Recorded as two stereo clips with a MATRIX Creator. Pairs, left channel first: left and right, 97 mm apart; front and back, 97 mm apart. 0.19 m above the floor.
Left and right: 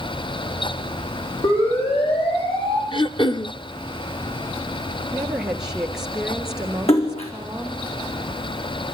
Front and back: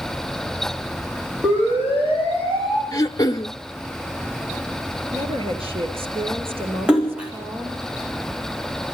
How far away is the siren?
About 8.5 m.